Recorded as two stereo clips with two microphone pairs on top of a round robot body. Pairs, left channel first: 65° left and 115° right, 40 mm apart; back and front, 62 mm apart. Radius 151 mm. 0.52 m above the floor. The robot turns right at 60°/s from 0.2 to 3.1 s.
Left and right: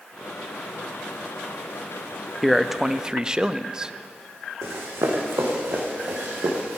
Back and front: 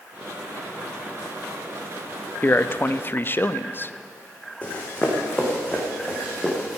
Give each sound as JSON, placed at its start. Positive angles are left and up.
{"t": 2.4, "sound": "a man speaking", "azimuth_deg": 150, "distance_m": 0.7}
{"t": 4.6, "sound": "running footsteps", "azimuth_deg": -110, "distance_m": 2.5}